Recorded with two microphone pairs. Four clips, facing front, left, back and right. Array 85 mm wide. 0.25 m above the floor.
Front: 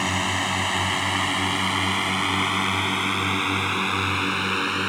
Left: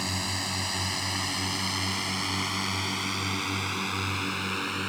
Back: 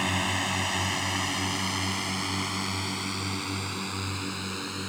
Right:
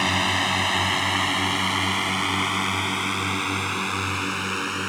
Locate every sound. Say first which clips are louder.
0.0 s a drone: right 10 dB, front 4 dB; 65° right; by 4.9 s 20° right